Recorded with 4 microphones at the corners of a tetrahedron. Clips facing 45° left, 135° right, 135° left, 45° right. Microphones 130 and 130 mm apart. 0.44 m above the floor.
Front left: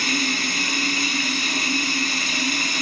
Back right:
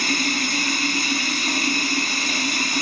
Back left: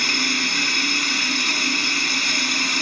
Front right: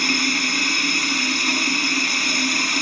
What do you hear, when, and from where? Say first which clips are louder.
0.0 s running water: back right 1 dB, front right 3 dB; 90° right, 2.5 m